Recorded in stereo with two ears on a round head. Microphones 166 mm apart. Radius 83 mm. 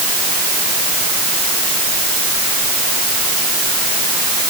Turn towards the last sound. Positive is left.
No sound to turn to.